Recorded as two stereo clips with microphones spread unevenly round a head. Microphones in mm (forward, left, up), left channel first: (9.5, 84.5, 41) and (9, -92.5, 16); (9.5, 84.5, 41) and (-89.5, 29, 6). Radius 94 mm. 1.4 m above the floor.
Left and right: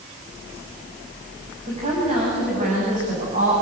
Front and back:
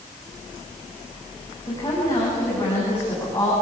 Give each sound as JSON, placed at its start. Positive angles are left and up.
{"t": 1.7, "sound": "a woman speaking", "azimuth_deg": -35, "distance_m": 8.0}